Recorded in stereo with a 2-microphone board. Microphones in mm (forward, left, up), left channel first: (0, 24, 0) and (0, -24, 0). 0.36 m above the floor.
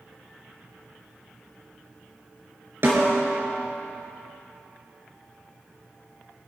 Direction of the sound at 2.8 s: 55° right (ahead or behind).